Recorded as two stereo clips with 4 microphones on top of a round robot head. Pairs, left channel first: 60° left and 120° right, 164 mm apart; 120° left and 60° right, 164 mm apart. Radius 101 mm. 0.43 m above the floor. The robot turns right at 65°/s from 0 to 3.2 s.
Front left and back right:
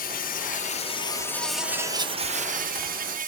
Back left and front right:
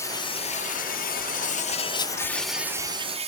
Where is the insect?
50° left, 1.1 m; by 3.3 s 100° right, 1.1 m.